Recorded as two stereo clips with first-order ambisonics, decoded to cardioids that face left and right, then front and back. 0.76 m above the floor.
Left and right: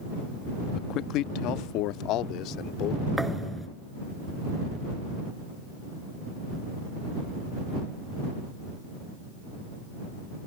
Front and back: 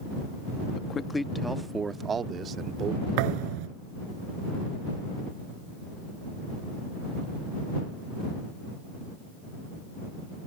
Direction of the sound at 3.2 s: 175° right.